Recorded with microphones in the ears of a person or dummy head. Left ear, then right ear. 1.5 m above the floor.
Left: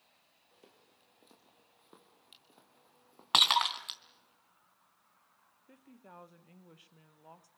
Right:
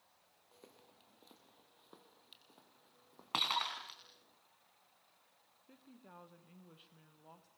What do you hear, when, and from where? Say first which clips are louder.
0.5 s footsteps: right 2 dB; 10° right (ahead or behind), 2 m; by 4.3 s 15° left (ahead or behind), 4.5 m
3.3 s breaking glass: left 10 dB; 45° left (ahead or behind), 3 m
5.7 s a woman speaking: left 4 dB; 25° left (ahead or behind), 1.5 m